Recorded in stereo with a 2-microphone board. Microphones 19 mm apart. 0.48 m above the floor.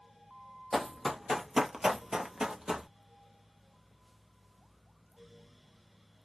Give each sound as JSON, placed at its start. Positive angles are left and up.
{"t": 0.7, "sound": "running footsteps", "side_deg": 0, "distance_m": 0.9}